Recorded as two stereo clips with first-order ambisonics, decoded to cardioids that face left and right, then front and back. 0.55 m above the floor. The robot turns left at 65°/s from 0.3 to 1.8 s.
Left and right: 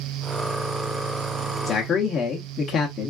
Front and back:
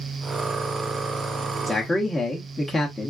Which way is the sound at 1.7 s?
70° left.